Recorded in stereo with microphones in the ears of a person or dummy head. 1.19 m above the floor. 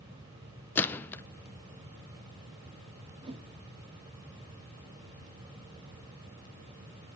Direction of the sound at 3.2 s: 30° right (ahead or behind).